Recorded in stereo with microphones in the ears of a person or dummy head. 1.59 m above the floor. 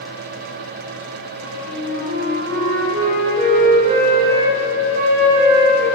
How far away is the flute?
About 4.5 m.